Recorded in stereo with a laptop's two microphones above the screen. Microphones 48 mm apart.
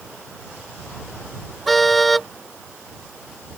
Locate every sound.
1.7 s a car horn: centre (ahead or behind)